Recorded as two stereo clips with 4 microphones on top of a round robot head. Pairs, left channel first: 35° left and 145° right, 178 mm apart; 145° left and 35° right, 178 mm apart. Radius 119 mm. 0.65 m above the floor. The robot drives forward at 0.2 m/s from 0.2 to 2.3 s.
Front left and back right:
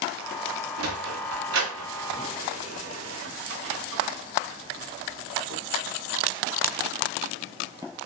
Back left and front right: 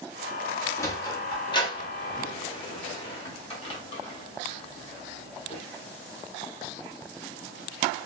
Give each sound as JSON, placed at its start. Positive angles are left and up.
{"t": 0.8, "sound": "a sliding door", "azimuth_deg": -140, "distance_m": 0.6}